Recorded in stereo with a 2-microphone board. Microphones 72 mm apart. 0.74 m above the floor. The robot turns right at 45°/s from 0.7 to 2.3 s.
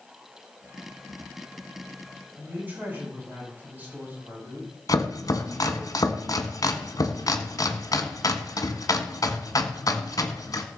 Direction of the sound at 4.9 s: 55° left (ahead or behind).